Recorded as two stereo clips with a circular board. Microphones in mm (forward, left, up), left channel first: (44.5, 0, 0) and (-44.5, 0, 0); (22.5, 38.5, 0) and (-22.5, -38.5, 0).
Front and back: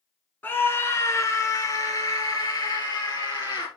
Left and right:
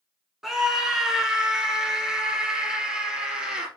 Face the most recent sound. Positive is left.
turn(degrees=-40)